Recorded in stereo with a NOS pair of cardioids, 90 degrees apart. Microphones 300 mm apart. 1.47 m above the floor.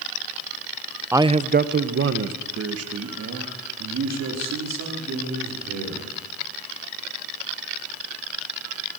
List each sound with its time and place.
1.1 s a man speaking: 5° right, 0.7 m; by 6.1 s 65° right, 5.5 m